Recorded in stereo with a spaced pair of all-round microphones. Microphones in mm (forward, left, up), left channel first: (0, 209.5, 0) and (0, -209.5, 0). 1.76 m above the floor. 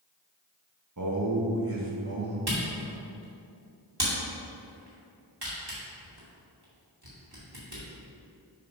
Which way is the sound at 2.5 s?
55° right (ahead or behind).